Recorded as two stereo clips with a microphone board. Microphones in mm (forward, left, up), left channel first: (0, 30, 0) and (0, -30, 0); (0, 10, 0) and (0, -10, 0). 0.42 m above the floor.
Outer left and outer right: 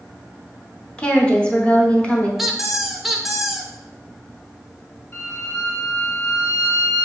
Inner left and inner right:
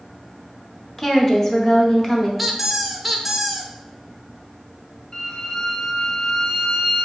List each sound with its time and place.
1.0 s a woman speaking: 15° left (ahead or behind), 0.8 m
2.4 s a squeak: 5° right (ahead or behind), 0.5 m
5.1 s a violin: 55° left (ahead or behind), 2 m